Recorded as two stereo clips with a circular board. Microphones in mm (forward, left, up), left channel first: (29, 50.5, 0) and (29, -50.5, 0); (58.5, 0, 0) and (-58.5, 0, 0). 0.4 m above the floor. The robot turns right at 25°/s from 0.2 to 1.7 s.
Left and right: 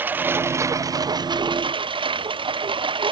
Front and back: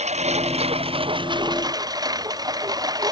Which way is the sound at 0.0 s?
160° right.